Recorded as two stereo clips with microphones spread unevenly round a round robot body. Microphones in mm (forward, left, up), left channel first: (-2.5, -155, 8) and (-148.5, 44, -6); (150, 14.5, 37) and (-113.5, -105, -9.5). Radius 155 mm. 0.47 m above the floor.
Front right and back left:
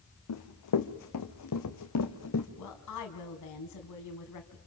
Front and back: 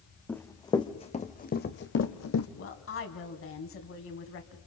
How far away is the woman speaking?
About 3.5 m.